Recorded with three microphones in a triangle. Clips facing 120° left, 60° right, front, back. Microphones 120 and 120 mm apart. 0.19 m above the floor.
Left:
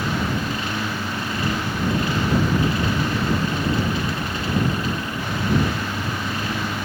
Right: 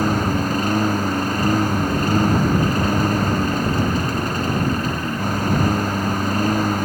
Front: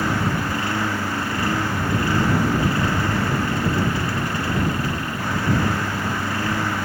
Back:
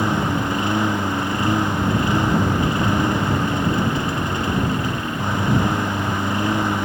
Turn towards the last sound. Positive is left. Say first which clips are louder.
# right 5 dB, back 2 dB
turn(degrees=-110)